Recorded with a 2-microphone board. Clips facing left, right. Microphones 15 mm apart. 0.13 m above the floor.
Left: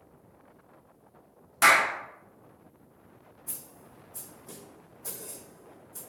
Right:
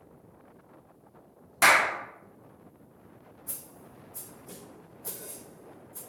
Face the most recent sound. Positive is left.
turn(degrees=65)  # may be behind; listen again after turning